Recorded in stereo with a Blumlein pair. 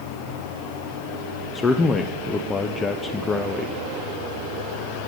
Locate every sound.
1.6 s a man speaking: 15° left, 0.6 m